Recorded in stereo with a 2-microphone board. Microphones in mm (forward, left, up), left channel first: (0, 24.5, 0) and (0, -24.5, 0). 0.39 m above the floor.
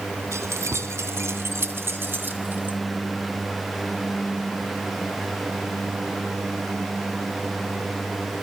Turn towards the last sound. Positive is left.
turn(degrees=-35)  # may be behind; listen again after turning